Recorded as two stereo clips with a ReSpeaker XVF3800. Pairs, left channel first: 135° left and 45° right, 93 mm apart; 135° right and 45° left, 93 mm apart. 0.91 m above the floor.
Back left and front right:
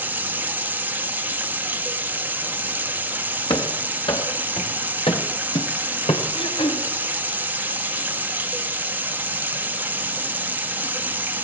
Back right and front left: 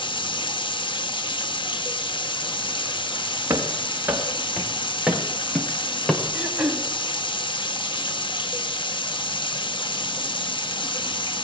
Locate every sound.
0.0 s running water: 115° right, 1.3 m
3.5 s running footsteps: 110° left, 5.5 m; by 6.2 s 145° left, 4.5 m
6.3 s throat clearing: 130° left, 3.5 m